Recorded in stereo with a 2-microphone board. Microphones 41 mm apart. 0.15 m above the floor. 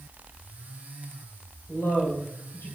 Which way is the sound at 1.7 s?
70° left (ahead or behind).